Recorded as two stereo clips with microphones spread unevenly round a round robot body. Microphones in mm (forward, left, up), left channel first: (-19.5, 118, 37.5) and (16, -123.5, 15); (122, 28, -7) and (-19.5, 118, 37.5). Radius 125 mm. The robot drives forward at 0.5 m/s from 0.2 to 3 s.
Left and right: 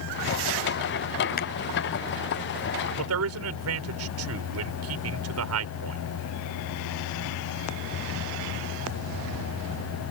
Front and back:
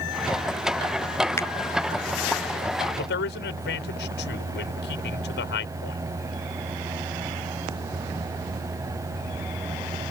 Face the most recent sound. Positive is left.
turn(degrees=-55)